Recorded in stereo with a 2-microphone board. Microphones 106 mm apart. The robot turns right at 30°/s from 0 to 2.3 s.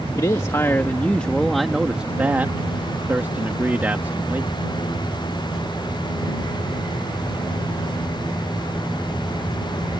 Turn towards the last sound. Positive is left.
turn(degrees=-160)